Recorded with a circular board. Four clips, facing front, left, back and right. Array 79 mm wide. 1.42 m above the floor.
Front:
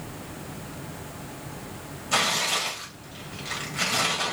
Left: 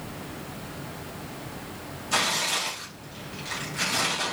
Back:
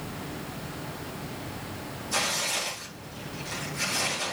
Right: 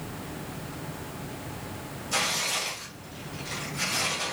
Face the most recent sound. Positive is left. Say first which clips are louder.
# left 3 dB, front 5 dB
turn(degrees=25)